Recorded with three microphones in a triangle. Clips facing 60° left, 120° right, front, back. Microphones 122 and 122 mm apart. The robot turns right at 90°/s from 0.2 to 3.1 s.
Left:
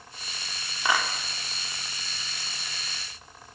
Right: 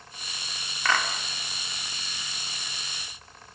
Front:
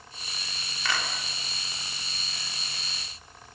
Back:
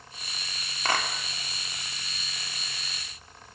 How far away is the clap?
About 3 m.